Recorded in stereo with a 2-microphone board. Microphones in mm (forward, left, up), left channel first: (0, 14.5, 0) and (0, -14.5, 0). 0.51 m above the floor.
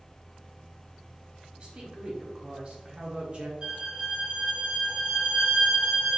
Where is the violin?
35° right (ahead or behind), 1.5 m.